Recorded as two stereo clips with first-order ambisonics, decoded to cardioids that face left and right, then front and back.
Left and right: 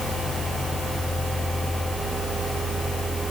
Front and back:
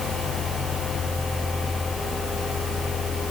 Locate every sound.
Only background noise.